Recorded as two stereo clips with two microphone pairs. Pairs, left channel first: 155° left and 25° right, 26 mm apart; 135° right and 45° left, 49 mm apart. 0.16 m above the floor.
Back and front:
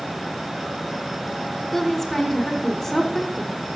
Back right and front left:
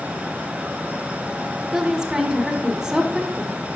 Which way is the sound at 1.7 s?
100° left.